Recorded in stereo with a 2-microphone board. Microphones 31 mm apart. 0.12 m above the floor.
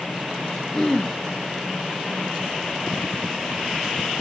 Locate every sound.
0.7 s throat clearing: 20° left (ahead or behind), 1.3 m